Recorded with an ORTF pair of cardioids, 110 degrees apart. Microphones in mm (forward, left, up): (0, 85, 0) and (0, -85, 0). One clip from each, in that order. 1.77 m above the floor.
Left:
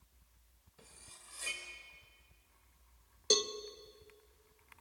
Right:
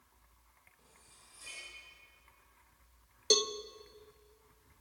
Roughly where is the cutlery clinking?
Left.